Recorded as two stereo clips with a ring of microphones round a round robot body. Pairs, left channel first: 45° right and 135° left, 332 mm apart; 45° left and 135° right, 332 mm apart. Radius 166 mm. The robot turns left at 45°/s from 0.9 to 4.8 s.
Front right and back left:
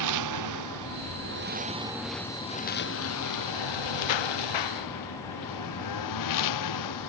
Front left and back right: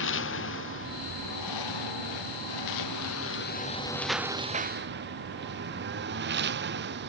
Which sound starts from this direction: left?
A lawn mower, at 0.0 s.